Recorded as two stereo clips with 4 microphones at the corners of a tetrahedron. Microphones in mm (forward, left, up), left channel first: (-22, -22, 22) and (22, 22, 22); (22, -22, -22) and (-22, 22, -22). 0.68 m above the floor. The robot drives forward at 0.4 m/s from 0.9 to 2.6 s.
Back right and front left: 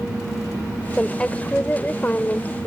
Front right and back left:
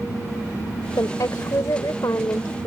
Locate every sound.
1.0 s a woman speaking: 65° right; by 2.7 s 75° right